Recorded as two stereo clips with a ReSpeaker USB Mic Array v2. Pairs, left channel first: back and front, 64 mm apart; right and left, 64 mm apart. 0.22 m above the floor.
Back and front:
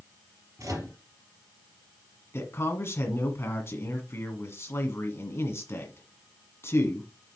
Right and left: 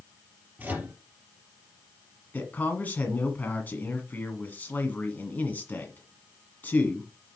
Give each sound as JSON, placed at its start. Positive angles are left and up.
{"t": 0.6, "sound": "a microwave", "azimuth_deg": 30, "distance_m": 3.5}
{"t": 2.3, "sound": "a man speaking", "azimuth_deg": -145, "distance_m": 1.6}